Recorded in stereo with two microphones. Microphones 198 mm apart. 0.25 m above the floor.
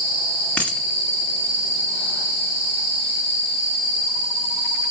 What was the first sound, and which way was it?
A dropped coin, 5° left (ahead or behind).